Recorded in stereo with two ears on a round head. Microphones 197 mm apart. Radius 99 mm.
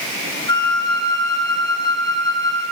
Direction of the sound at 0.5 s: 20° left (ahead or behind).